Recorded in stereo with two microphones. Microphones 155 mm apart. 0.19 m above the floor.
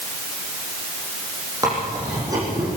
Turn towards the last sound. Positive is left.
turn(degrees=-25)  # may be behind; listen again after turning